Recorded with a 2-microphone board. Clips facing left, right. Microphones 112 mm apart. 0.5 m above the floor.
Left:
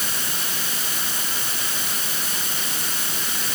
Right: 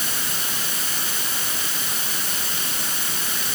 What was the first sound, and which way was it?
Only background noise.